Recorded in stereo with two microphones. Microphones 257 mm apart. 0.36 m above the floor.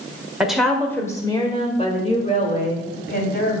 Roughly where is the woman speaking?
Centre.